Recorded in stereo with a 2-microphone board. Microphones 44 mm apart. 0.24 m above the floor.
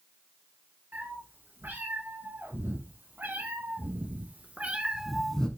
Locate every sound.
0.9 s a cat meowing: 70° right (ahead or behind), 5.5 m; by 5.5 s 20° left (ahead or behind), 0.9 m